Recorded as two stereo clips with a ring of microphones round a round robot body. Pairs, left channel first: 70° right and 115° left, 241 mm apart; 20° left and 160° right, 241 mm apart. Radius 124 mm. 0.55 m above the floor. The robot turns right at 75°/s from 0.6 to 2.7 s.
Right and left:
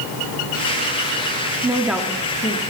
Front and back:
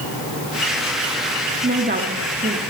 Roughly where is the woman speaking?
Behind.